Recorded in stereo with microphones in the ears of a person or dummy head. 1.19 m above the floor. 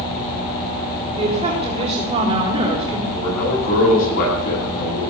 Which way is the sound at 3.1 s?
50° left (ahead or behind).